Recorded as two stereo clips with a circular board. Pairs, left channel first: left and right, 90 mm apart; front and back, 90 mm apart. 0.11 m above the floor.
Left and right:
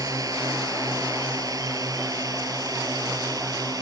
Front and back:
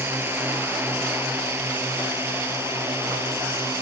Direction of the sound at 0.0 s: 120° right.